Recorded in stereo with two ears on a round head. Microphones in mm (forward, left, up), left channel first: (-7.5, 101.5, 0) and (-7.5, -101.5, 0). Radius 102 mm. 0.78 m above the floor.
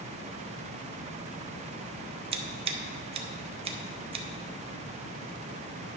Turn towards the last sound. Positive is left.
turn(degrees=-25)  # may be behind; listen again after turning